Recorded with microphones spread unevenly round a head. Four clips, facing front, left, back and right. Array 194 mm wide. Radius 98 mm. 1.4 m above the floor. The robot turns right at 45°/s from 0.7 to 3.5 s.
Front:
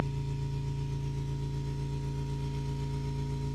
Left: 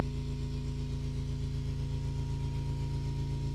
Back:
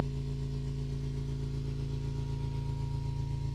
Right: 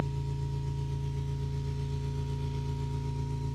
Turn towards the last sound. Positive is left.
turn(degrees=-10)